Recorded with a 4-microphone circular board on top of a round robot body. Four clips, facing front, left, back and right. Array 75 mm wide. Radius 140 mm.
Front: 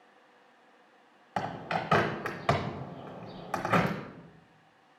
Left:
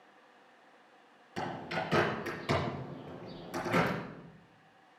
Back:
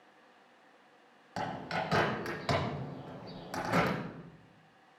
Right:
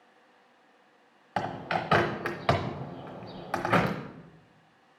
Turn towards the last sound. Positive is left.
turn(degrees=-60)